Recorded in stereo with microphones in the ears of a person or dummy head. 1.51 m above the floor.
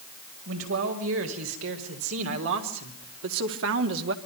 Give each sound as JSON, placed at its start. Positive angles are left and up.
{"t": 0.5, "sound": "a man speaking", "side_deg": -80, "distance_m": 6.0}